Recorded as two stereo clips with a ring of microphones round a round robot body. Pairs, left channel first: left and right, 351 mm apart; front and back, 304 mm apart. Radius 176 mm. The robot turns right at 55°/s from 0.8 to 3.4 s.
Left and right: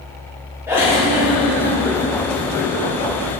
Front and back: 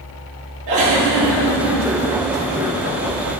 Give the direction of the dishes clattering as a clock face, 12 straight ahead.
I don't hear dishes clattering.